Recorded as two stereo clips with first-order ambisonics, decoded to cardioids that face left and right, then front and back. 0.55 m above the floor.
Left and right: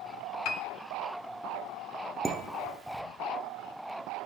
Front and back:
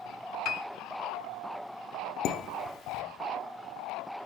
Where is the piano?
50° left, 0.7 m.